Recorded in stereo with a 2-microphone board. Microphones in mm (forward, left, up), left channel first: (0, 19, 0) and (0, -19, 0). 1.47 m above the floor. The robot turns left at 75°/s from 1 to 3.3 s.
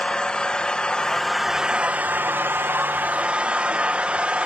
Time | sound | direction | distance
0.0 | an engine running | 25° left | 0.8 m